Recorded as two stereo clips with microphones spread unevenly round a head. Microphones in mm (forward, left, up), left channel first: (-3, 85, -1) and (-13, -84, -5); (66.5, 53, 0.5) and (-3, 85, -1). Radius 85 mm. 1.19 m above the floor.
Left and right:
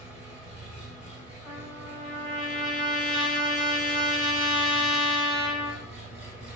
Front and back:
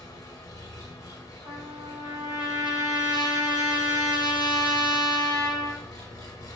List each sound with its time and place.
0.0 s an engine running: 10° right, 1.4 m
1.4 s a trumpet: 140° left, 2.5 m